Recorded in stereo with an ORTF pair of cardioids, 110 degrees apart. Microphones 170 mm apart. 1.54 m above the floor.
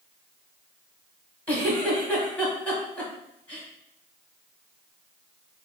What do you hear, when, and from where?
1.5 s a giggle: 10° left, 1.8 m